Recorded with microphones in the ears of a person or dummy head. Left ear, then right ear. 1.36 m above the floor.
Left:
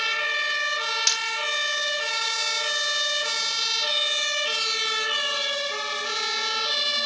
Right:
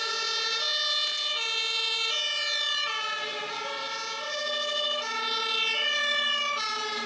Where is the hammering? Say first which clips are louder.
Left 6 dB; 80° left, 6 m.